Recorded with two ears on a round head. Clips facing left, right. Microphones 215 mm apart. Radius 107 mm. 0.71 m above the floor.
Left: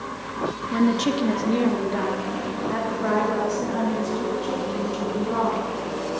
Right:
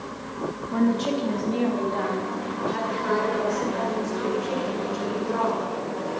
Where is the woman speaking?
25° left (ahead or behind), 1.0 m; by 5.6 s 80° left, 7 m.